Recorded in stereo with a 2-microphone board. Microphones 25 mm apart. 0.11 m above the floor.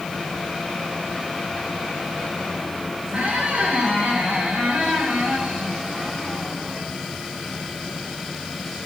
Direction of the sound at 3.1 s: 60° right (ahead or behind).